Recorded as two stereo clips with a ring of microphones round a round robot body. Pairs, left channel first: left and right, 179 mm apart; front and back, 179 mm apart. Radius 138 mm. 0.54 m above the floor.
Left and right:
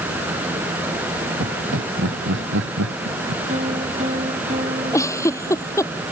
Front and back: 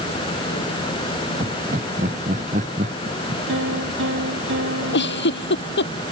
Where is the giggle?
15° left.